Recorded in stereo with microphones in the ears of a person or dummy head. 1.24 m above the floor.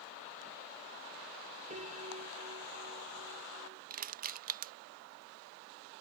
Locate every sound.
1.7 s a piano: 35° right (ahead or behind)
3.9 s crushing: 45° right (ahead or behind)